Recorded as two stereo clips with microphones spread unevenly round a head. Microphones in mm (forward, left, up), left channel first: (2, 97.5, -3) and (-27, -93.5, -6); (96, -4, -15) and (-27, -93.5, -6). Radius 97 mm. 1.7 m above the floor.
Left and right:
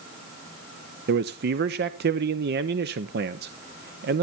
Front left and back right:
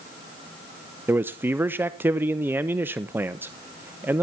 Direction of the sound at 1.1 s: 70° right.